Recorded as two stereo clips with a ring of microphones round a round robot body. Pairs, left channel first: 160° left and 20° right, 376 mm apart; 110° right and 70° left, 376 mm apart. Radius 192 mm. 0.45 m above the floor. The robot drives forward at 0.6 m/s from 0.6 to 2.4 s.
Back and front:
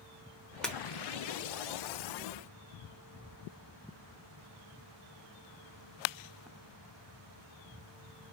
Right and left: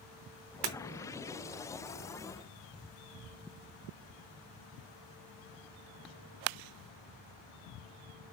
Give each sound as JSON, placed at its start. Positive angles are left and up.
{"t": 0.6, "sound": "breaking glass", "azimuth_deg": 70, "distance_m": 1.0}